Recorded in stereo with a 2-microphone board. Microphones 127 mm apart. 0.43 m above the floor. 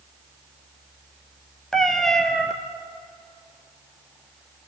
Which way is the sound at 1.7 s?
5° left (ahead or behind).